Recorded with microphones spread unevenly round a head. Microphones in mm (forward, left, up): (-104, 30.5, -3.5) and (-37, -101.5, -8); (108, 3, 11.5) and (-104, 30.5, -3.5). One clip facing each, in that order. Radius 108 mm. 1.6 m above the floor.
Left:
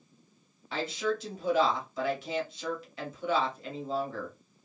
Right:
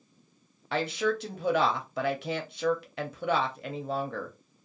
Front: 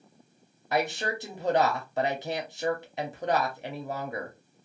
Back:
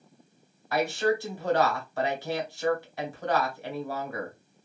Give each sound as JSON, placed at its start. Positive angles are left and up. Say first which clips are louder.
{"t": 0.7, "sound": "a woman speaking", "louder": "right 3 dB, back 4 dB", "azimuth_deg": -75, "distance_m": 0.8}